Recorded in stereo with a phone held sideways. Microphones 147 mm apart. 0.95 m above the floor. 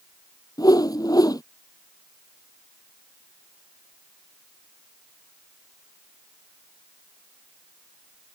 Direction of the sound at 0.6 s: 25° left (ahead or behind).